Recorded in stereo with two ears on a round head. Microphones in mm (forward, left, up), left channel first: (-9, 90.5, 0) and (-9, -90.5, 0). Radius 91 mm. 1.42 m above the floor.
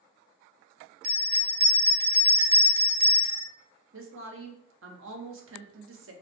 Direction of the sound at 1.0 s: 45° right (ahead or behind).